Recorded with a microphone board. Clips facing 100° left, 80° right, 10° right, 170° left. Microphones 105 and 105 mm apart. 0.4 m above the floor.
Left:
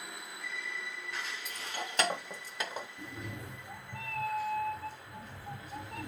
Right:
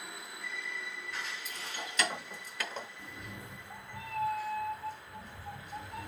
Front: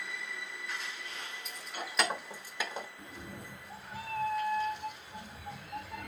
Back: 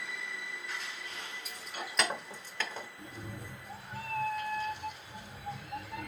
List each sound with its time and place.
1.4 s keys jangling: 80° left, 1.7 m; by 2.9 s 20° left, 0.7 m
3.0 s a cat meowing: 75° left, 1.9 m